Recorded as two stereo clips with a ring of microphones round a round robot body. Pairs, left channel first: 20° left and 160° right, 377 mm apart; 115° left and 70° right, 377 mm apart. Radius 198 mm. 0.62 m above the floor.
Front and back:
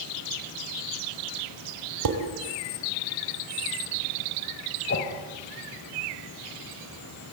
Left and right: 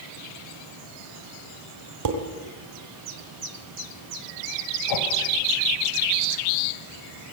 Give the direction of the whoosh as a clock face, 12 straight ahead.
9 o'clock.